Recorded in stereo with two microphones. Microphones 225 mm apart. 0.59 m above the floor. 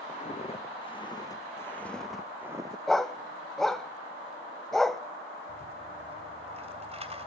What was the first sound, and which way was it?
Footsteps, 30° left (ahead or behind).